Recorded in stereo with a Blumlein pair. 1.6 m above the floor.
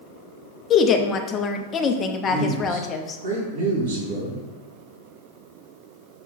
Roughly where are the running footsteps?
I don't hear running footsteps.